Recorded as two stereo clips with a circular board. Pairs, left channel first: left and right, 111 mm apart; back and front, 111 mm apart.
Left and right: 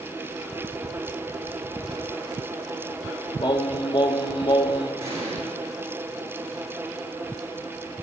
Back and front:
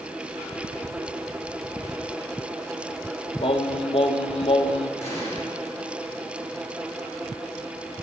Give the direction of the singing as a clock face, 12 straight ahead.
7 o'clock.